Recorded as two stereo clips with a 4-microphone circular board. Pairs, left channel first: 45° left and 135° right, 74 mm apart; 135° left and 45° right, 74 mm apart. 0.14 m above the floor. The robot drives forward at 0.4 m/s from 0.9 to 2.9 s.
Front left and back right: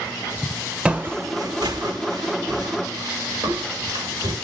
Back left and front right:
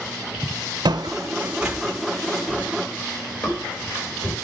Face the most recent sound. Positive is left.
turn(degrees=-170)